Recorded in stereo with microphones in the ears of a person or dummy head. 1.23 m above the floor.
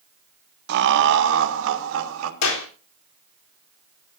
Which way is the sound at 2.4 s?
90° left.